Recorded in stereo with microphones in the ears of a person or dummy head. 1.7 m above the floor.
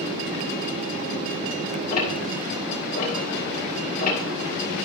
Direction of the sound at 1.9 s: 45° left (ahead or behind).